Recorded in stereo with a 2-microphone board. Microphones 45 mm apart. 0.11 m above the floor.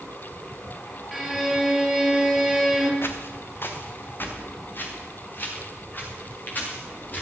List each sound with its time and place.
1.1 s a violin: centre (ahead or behind), 2.5 m
3.0 s footsteps: 50° left (ahead or behind), 2 m; by 7.2 s 40° left (ahead or behind), 6.5 m